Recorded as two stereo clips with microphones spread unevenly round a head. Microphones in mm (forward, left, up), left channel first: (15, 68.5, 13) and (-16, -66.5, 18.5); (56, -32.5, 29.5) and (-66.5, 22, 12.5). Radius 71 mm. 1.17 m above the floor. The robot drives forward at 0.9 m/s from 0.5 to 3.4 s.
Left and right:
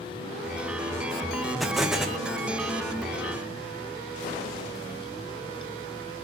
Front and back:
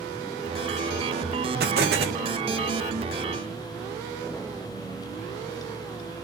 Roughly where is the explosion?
Behind.